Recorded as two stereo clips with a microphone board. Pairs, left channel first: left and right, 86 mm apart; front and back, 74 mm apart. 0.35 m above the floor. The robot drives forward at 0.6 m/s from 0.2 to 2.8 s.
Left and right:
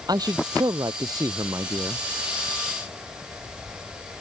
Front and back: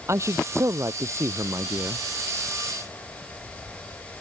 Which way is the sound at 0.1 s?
130° right.